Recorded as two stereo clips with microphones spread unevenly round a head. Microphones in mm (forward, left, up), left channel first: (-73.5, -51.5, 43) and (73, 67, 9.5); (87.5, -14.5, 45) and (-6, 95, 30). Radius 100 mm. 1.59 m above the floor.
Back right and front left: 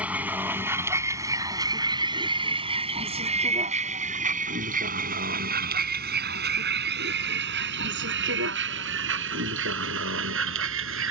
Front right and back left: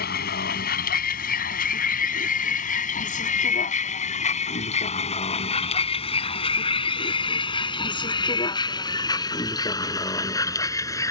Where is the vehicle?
45° right; by 11.1 s 15° left.